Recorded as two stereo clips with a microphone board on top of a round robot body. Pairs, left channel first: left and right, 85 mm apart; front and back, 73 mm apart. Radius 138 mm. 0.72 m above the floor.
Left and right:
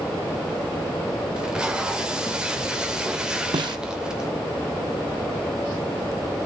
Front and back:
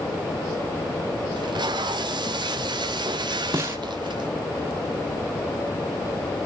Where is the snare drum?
125° right, 0.7 m.